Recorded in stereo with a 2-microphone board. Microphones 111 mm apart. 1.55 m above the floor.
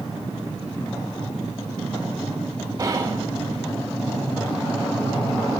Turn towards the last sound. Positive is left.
turn(degrees=-30)  # may be behind; listen again after turning